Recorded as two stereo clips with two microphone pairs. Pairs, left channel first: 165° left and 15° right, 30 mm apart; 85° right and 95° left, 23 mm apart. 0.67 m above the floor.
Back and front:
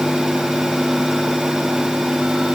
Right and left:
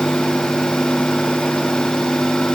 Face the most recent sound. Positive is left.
No sound to turn to.